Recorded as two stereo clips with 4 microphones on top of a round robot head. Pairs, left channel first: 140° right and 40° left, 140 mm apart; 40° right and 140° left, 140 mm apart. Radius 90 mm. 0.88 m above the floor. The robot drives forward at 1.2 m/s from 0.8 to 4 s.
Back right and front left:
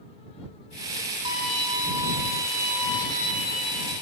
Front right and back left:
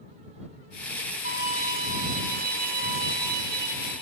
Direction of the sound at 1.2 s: 100° left.